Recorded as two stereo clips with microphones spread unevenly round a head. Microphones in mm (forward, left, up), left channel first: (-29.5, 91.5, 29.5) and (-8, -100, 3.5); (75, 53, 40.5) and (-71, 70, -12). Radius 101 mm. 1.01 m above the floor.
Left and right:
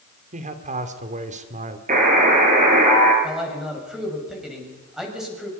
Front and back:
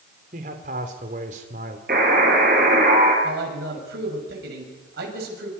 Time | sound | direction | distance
0.3 | a man speaking | 135° right | 2.5 m
1.9 | a buzzer | 135° right | 6 m
3.2 | a man speaking | 170° right | 6.5 m